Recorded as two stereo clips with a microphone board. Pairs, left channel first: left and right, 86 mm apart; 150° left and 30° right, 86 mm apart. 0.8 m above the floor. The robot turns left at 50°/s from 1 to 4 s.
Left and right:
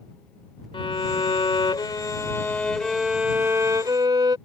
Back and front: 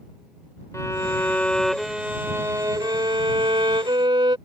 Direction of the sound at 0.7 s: 95° left.